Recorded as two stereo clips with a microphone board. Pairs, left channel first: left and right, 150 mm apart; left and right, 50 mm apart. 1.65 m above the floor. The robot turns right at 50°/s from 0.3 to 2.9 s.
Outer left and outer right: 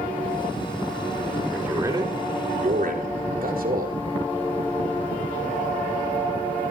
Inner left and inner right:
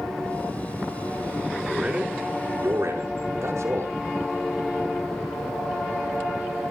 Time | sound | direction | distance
1.5 | a man speaking | 5° right (ahead or behind) | 5.5 m